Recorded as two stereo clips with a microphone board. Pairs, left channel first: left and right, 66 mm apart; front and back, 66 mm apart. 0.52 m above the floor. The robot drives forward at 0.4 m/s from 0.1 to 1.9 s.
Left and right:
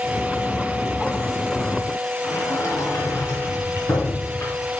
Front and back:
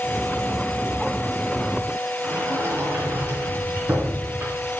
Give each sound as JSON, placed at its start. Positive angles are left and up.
{"t": 2.2, "sound": "a sliding door", "azimuth_deg": 130, "distance_m": 3.0}